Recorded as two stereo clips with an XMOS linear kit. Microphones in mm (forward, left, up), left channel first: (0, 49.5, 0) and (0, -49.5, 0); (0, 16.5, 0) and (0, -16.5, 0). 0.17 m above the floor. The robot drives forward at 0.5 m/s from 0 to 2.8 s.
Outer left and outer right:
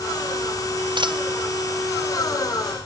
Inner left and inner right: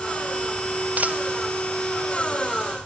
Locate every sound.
1.0 s a dropped coin: 50° right (ahead or behind)